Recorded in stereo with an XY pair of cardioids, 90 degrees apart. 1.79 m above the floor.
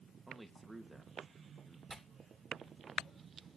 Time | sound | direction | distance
0.3 | a man speaking | 10° right | 2.5 m
1.9 | tearing paper | 35° right | 2.5 m